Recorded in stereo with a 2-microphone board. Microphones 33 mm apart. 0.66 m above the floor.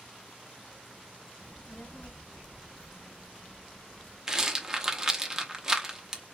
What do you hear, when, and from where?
1.4 s a child speaking: 35° left (ahead or behind), 0.5 m; by 4.2 s 25° left (ahead or behind), 1.9 m
4.3 s a rattle: 15° right (ahead or behind), 0.9 m